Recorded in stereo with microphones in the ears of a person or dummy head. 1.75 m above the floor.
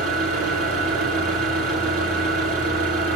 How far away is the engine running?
About 8 m.